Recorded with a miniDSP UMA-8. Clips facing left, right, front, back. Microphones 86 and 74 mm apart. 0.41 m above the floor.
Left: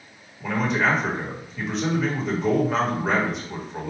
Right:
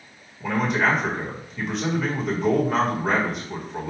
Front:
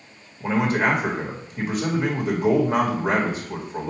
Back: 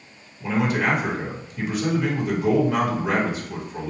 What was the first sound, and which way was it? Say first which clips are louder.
A man speaking: right 1 dB, front 1 dB; straight ahead.